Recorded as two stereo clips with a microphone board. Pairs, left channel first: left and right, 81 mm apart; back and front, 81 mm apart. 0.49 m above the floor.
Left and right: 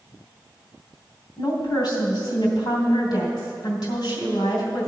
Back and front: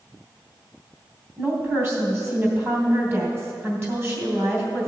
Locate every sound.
1.4 s a woman speaking: 60° left, 3 m